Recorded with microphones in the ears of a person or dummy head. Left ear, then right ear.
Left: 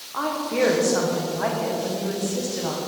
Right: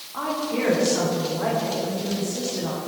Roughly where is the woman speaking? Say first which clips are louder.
Left 3 dB; left.